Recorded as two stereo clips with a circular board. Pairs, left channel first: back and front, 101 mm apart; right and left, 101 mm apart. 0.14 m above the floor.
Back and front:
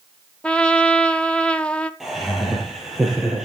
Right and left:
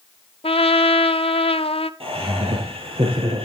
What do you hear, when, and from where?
0.4 s a trumpet: 100° right, 0.8 m
2.0 s laughter: 90° left, 3.5 m